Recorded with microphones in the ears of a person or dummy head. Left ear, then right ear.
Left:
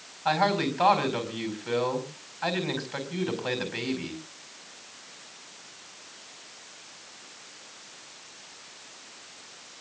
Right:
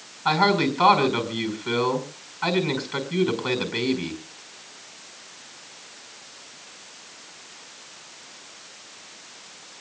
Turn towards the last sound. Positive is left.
turn(degrees=0)  # may be behind; listen again after turning